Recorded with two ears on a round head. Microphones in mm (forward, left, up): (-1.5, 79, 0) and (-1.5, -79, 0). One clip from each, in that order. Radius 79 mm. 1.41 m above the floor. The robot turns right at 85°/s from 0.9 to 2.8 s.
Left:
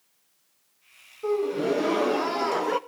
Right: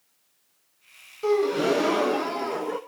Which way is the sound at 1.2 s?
75° right.